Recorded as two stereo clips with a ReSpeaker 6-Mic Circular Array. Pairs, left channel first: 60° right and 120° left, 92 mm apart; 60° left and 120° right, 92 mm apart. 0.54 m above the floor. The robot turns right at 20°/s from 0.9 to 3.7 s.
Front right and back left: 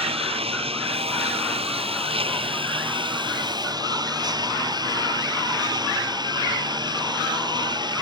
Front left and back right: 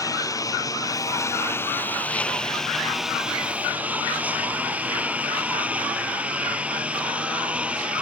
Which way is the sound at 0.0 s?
115° left.